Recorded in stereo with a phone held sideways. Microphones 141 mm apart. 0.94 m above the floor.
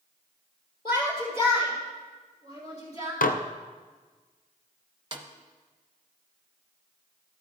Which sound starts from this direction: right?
A snare drum, at 5.1 s.